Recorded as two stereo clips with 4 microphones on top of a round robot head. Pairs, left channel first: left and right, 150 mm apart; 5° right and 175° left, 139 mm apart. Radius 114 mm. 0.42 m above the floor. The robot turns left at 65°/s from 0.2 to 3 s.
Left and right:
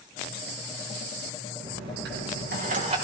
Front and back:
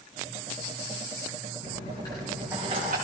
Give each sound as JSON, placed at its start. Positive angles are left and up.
{"t": 1.6, "sound": "a dropped coin", "azimuth_deg": -50, "distance_m": 4.0}